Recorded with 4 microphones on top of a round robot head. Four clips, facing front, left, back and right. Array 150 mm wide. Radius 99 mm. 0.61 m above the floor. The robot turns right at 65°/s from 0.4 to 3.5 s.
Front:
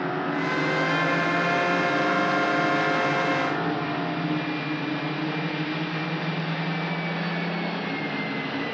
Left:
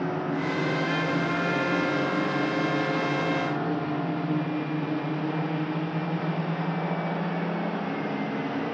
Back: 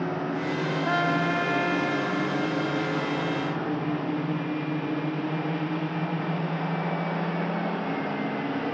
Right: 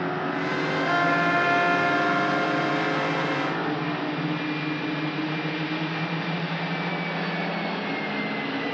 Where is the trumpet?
140° right; by 4.6 s 35° left.